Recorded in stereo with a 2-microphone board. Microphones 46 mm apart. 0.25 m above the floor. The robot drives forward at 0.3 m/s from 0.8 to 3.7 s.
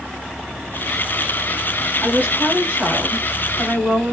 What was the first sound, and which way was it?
A woman speaking, 40° right (ahead or behind).